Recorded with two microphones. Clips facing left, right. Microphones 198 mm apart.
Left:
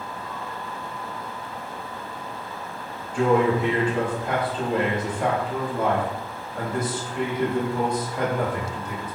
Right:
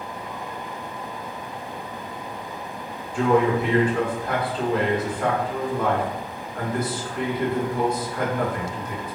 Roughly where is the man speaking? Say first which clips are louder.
Even; left.